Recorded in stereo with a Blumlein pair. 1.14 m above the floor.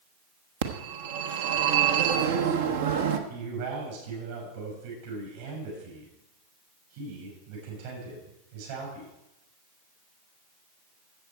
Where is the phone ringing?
55° right, 1.1 m.